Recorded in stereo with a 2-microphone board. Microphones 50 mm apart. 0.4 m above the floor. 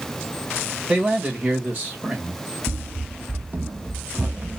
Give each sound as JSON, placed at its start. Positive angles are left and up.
{"t": 0.9, "sound": "a man speaking", "side_deg": -30, "distance_m": 2.0}
{"t": 2.7, "sound": "running footsteps", "side_deg": -50, "distance_m": 0.5}